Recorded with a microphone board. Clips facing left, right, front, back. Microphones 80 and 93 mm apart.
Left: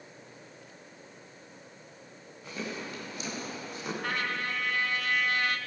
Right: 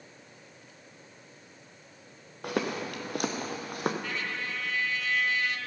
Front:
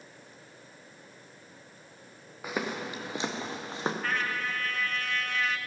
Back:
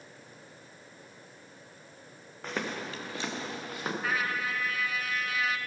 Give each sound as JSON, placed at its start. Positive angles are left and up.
{"t": 2.4, "sound": "footsteps", "azimuth_deg": -80, "distance_m": 1.7}
{"t": 4.0, "sound": "a trumpet", "azimuth_deg": 95, "distance_m": 0.8}